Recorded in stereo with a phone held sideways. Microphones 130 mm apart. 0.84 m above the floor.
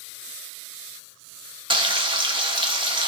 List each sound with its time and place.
1.7 s frying: 40° right (ahead or behind), 1.0 m